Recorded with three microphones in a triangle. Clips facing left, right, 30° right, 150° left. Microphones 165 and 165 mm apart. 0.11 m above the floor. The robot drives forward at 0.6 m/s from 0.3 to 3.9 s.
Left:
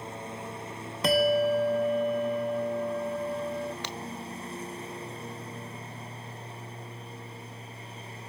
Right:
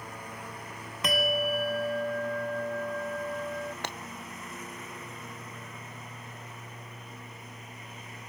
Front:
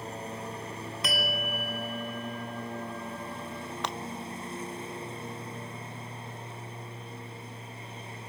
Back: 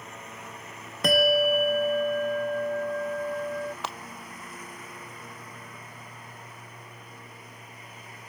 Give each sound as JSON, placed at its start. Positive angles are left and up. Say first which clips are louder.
{"t": 0.0, "sound": "a lawn mower", "louder": "left 4 dB, front 6 dB", "azimuth_deg": 25}
{"t": 1.0, "sound": "a bell", "louder": "left 6 dB, back 13 dB", "azimuth_deg": 135}
{"t": 3.8, "sound": "breaking glass", "louder": "even, front 1 dB", "azimuth_deg": -125}